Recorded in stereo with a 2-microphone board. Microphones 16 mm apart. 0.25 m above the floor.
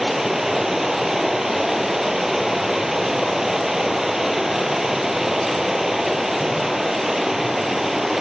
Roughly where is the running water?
Right.